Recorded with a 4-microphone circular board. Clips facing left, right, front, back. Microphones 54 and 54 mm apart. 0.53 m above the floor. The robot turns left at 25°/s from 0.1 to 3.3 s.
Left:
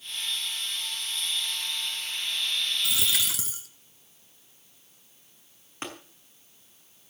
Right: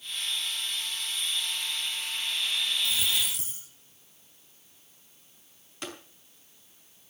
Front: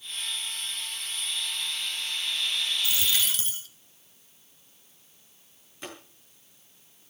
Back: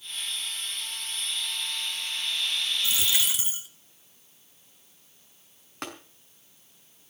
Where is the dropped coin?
115° left, 1.8 m; by 3.7 s 100° left, 1.8 m.